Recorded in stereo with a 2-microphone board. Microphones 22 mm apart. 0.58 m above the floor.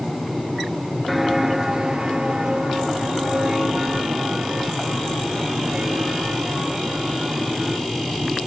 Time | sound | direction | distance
1.1 | footsteps | centre (ahead or behind) | 0.5 m